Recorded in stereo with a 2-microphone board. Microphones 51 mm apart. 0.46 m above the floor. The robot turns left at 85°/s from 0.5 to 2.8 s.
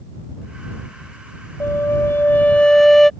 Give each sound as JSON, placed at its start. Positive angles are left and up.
{"t": 1.6, "sound": "a flute", "azimuth_deg": 110}